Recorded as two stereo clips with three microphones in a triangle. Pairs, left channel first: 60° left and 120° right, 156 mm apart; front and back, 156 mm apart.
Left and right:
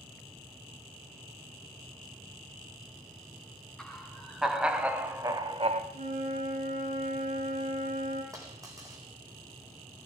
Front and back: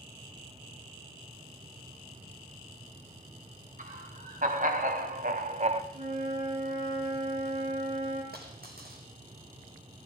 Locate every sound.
3.8 s laughter: 145° left, 3.5 m; by 5.8 s 145° right, 1.2 m
5.9 s a flute: 140° right, 7 m
8.3 s a dropped coin: 170° left, 3.5 m